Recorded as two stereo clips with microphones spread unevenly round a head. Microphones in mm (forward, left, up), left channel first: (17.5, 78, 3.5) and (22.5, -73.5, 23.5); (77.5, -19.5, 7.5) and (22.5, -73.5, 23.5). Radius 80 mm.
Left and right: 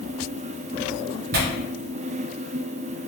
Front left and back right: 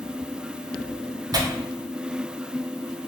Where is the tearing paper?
100° right, 0.6 m.